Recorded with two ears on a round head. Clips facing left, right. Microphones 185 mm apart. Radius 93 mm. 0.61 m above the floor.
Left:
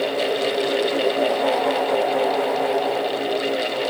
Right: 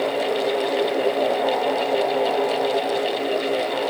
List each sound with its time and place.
Only background noise.